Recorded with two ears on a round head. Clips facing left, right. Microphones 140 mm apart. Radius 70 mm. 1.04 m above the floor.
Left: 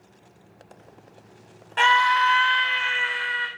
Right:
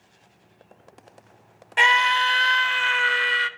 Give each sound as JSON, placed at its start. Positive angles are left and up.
{"t": 1.8, "sound": "a scream", "side_deg": -15, "distance_m": 0.7}